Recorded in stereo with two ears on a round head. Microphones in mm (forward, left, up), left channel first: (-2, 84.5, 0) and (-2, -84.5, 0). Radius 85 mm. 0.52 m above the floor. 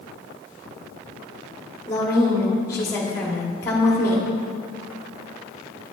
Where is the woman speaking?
15° left (ahead or behind), 1.0 m.